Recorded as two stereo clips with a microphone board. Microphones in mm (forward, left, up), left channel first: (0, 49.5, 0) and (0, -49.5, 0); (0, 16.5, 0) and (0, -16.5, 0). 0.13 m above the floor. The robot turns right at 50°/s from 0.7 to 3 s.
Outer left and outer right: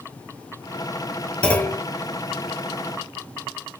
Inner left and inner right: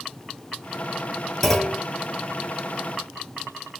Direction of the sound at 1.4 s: 10° left (ahead or behind).